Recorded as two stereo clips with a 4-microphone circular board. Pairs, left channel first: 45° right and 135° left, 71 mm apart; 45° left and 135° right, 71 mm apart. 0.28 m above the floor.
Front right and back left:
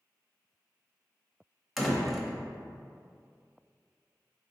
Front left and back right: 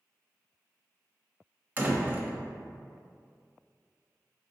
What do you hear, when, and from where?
1.8 s a door slam: 135° right, 0.6 m